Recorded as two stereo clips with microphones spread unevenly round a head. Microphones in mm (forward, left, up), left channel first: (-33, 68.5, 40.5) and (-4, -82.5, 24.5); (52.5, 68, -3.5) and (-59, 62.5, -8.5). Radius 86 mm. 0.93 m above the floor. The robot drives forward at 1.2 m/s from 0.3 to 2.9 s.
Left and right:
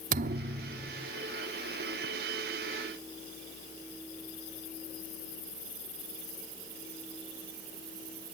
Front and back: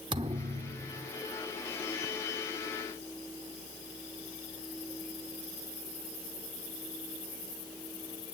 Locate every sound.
0.1 s a thud: 115° right, 1.0 m; by 1.1 s 150° right, 1.6 m